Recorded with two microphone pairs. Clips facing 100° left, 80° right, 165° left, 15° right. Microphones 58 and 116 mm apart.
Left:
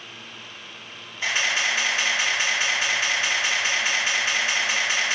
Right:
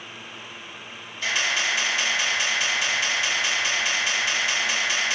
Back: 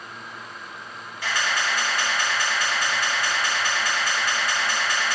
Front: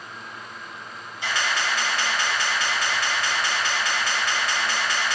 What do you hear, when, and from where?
1.2 s a camera shutter: 45° left, 1.9 m